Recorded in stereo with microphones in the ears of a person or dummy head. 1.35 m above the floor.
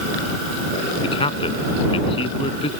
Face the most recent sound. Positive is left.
turn(degrees=30)  # may be behind; listen again after turning